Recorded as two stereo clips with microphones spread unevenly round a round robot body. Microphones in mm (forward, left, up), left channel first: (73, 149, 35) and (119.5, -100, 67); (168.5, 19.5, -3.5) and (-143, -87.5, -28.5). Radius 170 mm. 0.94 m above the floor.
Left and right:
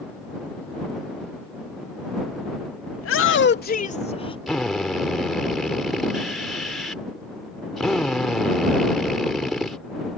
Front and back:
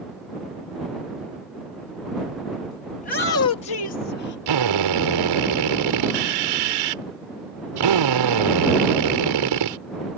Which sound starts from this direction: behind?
A drill, at 4.5 s.